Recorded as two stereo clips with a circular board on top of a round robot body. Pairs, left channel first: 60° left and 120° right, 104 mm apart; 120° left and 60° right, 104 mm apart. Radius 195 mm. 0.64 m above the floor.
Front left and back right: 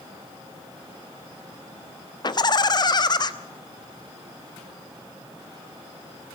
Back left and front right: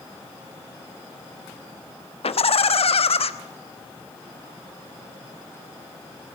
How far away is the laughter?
About 1.1 m.